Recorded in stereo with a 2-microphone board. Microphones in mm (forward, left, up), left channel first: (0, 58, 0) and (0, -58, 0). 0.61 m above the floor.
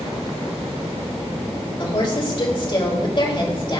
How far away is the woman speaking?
About 2.5 m.